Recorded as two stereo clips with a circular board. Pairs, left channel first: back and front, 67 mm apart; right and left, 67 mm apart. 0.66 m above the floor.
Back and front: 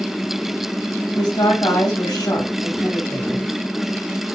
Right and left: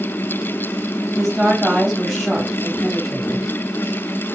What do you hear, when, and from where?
1.1 s a woman speaking: 175° left, 3.5 m